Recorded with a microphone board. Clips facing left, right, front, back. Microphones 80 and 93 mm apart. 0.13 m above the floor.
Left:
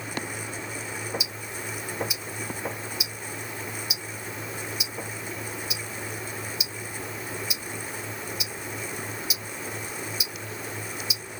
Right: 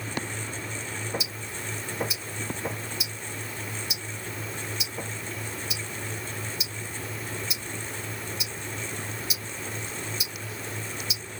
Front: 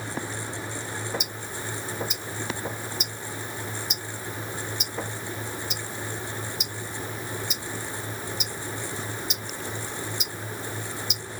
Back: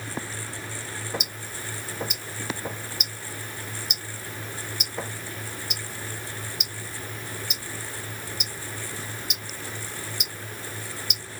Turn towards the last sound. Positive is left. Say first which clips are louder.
# left 1 dB, front 3 dB
turn(degrees=175)